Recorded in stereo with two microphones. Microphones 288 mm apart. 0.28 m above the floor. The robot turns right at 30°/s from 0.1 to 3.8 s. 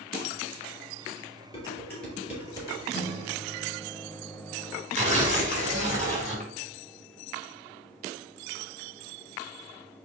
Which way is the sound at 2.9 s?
15° left (ahead or behind).